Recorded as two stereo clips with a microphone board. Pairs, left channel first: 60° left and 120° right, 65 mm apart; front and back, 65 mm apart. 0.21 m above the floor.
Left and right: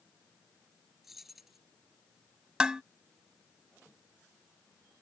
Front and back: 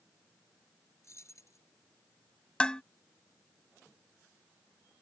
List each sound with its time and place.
1.0 s keys jangling: 35° right
2.6 s dishes clattering: 60° right